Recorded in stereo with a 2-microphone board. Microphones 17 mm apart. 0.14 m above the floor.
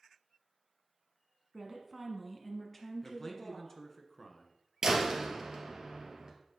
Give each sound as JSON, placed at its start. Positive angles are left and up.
{"t": 1.5, "sound": "a woman speaking", "side_deg": -15, "distance_m": 1.3}
{"t": 3.0, "sound": "a man speaking", "side_deg": 25, "distance_m": 1.3}
{"t": 4.8, "sound": "a door slam", "side_deg": -35, "distance_m": 1.7}